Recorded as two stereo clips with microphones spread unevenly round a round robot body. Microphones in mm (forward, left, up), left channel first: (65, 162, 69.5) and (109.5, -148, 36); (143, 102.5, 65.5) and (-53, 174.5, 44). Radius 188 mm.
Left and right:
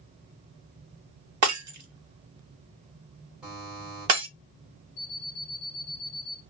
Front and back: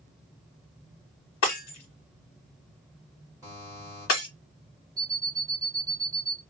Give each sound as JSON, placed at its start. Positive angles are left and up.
{"t": 1.4, "sound": "breaking glass", "azimuth_deg": -50, "distance_m": 0.8}
{"t": 3.4, "sound": "a buzzer", "azimuth_deg": -155, "distance_m": 1.6}
{"t": 5.0, "sound": "an alarm clock", "azimuth_deg": 85, "distance_m": 0.8}